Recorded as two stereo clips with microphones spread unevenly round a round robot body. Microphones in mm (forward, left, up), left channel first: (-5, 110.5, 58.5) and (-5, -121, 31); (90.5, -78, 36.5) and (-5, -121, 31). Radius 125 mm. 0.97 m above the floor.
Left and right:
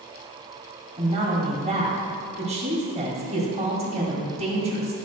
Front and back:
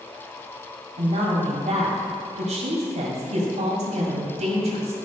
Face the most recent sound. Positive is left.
turn(degrees=-155)